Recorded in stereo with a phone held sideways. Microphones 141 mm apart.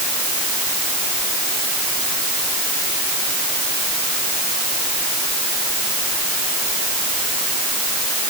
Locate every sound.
Only background noise.